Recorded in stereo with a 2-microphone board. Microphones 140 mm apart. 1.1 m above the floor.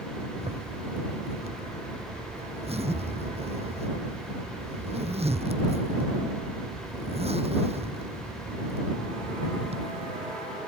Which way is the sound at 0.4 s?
50° right (ahead or behind).